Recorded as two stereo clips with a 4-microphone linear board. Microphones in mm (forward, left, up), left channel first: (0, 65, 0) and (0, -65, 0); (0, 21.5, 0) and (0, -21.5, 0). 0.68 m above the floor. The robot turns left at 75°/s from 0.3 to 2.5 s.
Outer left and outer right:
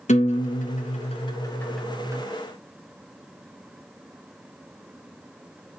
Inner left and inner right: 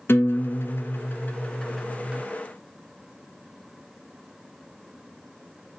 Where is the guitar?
115° left, 2 m; by 2.2 s 30° right, 2 m.